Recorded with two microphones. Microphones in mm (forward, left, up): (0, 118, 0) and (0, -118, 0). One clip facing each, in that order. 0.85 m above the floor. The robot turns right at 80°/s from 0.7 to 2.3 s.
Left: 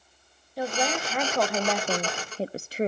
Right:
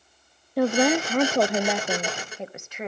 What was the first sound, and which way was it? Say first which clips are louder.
A woman speaking: right 9 dB; 90° right.